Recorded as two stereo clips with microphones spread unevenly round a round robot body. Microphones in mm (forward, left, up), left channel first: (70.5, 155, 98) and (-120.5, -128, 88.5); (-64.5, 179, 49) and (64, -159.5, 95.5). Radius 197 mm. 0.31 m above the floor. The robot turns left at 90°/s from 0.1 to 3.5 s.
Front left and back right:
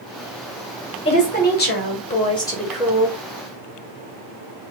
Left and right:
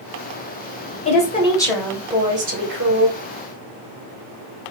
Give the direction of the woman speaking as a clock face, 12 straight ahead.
8 o'clock.